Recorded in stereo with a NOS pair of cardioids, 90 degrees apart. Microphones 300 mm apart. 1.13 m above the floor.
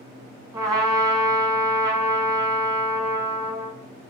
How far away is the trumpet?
About 1.1 m.